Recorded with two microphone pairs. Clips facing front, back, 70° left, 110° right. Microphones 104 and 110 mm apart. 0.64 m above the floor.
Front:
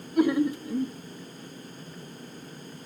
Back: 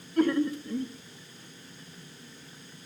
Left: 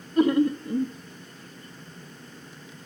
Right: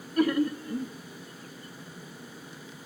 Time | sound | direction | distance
0.2 | laughter | 60° left | 0.6 m